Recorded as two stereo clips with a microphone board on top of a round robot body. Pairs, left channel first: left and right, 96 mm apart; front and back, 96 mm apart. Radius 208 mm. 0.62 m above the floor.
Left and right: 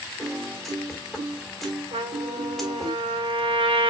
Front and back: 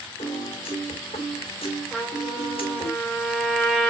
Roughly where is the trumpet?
Right.